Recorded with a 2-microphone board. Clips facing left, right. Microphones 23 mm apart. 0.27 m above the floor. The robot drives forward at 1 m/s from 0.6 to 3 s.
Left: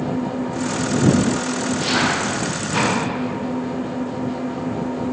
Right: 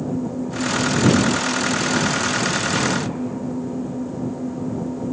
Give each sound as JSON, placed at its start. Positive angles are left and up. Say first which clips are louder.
{"t": 0.0, "sound": "an engine running", "louder": "left 2 dB", "side_deg": 65}